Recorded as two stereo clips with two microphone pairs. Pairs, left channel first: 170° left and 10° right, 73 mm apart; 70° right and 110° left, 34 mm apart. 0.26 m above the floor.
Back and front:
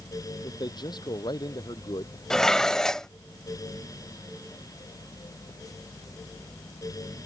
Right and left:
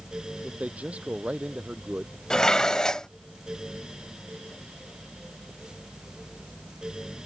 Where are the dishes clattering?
120° right.